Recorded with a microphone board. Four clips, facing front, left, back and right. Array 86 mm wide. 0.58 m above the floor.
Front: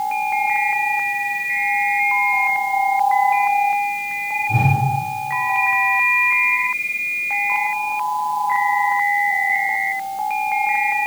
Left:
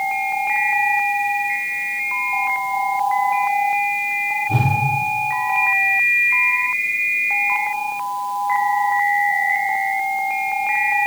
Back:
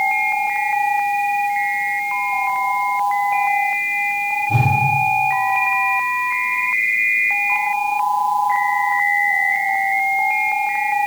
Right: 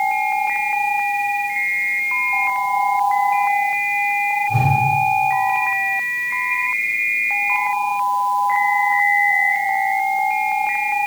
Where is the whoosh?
110° left, 3 m.